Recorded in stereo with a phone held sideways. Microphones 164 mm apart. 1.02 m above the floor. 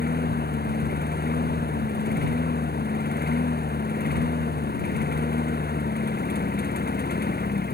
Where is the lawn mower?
75° left (ahead or behind).